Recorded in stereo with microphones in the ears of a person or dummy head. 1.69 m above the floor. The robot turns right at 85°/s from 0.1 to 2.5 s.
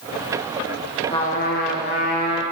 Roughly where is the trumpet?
Ahead left.